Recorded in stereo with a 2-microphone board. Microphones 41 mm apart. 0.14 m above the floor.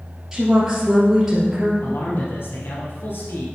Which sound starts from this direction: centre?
A woman speaking, at 0.3 s.